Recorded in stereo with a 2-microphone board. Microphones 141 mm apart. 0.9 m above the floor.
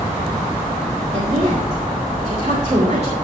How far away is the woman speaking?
About 3 m.